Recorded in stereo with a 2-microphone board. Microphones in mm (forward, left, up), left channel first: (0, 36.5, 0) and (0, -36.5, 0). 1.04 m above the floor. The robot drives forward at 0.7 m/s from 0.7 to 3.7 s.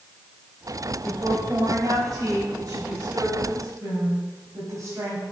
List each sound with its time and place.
1.0 s a woman speaking: 55° right (ahead or behind), 4 m; by 5.2 s 40° right (ahead or behind), 5.5 m